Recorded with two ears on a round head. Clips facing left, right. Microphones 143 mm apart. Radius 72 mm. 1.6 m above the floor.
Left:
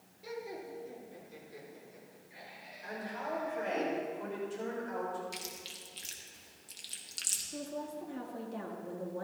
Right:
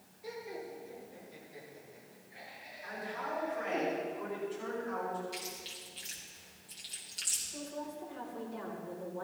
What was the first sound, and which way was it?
Laughter, 55° left (ahead or behind).